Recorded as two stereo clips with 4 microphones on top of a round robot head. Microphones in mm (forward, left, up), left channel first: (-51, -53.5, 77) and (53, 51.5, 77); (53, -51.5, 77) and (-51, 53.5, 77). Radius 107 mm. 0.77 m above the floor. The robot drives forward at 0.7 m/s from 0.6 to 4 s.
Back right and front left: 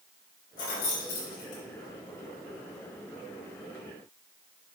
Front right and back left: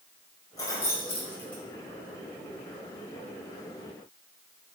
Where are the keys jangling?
110° right, 2 m; by 1.6 s 125° right, 2.5 m.